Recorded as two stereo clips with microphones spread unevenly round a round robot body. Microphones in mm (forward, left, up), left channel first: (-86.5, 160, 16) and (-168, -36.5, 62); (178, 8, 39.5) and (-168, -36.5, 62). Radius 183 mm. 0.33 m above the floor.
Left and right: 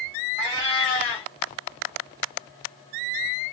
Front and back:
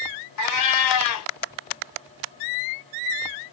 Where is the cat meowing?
20° left, 0.9 m.